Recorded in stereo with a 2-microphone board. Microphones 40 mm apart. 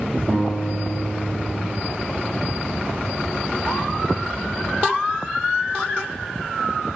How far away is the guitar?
About 1.6 m.